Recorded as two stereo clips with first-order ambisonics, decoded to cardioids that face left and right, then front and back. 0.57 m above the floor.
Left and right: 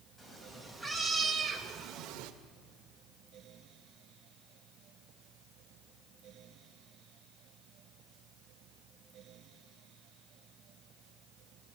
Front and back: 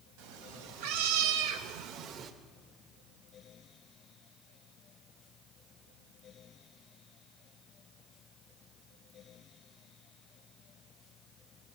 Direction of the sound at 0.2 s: 170° left.